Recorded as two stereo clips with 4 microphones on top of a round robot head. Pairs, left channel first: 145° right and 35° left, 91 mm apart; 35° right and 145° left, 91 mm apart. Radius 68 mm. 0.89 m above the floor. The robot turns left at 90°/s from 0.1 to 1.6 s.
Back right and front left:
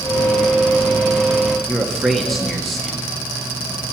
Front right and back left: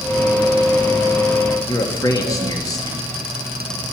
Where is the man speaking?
55° right, 1.1 m.